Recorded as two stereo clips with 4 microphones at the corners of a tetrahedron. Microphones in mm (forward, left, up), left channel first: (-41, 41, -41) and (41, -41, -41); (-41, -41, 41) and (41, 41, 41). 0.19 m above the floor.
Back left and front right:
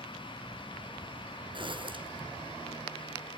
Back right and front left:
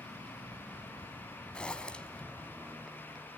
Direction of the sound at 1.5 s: 55° right.